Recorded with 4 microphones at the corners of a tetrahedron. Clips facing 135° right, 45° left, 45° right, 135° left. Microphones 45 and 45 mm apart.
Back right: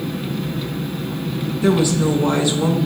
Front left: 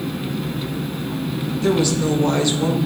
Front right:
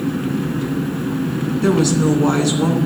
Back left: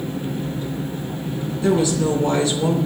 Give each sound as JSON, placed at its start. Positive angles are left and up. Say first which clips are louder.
{"t": 0.0, "sound": "an engine running", "louder": "even, front right 6 dB", "azimuth_deg": -40, "distance_m": 1.2}
{"t": 1.6, "sound": "a woman speaking", "louder": "back right 2 dB, front right 2 dB", "azimuth_deg": -65, "distance_m": 3.0}